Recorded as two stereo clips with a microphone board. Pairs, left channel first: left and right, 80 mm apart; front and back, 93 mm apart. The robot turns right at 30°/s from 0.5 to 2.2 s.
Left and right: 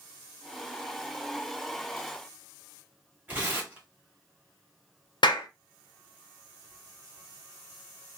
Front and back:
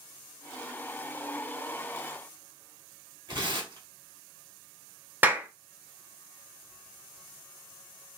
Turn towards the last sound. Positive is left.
turn(degrees=110)